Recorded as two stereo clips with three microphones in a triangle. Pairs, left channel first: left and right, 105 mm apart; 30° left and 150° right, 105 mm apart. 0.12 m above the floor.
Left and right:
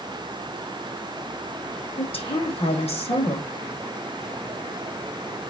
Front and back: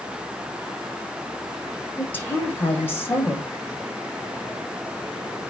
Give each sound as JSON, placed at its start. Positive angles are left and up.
{"t": 2.0, "sound": "a woman speaking", "azimuth_deg": 95, "distance_m": 4.5}